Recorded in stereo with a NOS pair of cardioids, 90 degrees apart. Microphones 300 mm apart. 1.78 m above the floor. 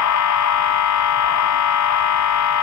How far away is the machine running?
About 1.4 m.